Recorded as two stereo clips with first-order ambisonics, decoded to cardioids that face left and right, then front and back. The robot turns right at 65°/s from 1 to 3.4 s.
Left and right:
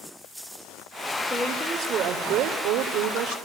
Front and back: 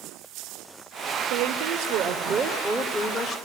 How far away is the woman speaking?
About 2.5 m.